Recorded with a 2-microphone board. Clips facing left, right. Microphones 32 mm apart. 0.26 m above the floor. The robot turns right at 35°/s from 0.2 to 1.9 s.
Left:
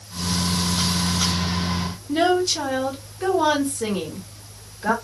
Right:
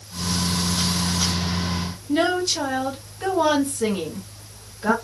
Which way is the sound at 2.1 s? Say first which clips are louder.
Left 2 dB; centre (ahead or behind).